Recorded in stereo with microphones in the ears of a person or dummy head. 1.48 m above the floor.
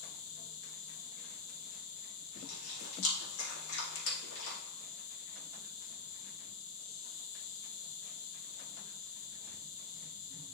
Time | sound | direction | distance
0.0 | an insect | 75° left (ahead or behind) | 1.9 m
2.4 | chewing | 80° left | 3 m